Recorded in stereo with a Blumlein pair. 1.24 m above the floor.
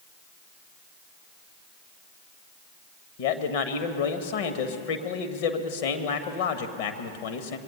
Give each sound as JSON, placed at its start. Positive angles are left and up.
{"t": 3.2, "sound": "a man speaking", "azimuth_deg": 50, "distance_m": 1.3}